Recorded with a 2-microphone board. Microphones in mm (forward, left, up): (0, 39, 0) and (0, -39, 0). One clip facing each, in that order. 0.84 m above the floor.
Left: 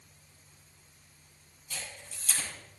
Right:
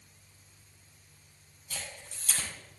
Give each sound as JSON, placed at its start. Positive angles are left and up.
{"t": 1.7, "sound": "a camera shutter", "side_deg": -45, "distance_m": 7.5}